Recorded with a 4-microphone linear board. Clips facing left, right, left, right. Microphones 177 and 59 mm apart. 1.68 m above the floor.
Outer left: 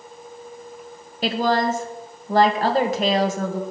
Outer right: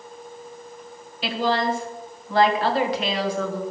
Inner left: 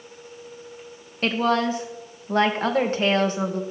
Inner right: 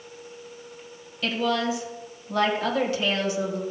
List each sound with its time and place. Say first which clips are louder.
1.2 s a woman speaking: outer left 3 dB, inner left 4 dB; 45° left (ahead or behind), 1.8 m